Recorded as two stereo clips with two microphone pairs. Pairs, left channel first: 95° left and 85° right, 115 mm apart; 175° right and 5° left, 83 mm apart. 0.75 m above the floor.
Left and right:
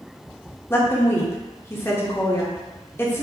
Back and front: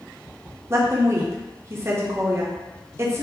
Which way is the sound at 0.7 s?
35° left.